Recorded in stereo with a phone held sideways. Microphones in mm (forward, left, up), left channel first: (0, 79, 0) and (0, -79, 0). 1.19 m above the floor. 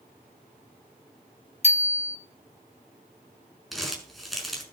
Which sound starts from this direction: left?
A bicycle bell, at 1.6 s.